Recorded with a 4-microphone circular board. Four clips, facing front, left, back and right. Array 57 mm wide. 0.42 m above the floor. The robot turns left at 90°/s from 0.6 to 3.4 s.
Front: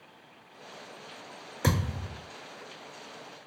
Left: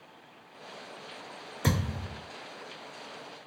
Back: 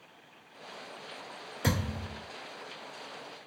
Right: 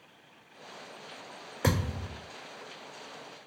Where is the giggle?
I don't hear a giggle.